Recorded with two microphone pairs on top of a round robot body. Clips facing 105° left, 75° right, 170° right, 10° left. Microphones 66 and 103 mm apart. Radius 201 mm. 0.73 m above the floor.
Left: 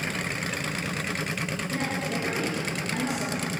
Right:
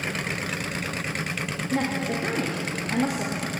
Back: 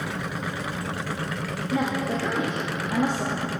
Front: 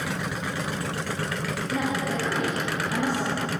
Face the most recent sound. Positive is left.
turn(degrees=-105)